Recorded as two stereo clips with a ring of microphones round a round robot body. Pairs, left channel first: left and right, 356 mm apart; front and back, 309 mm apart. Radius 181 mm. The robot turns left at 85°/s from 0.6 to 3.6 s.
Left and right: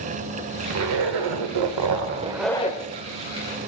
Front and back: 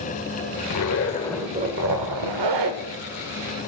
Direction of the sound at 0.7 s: 30° right.